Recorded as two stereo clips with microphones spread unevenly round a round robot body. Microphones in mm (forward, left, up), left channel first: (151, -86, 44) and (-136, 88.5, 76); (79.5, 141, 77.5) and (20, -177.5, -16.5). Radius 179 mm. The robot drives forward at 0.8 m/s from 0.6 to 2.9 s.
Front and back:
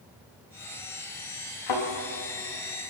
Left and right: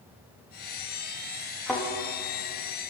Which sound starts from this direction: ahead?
A thud, at 1.7 s.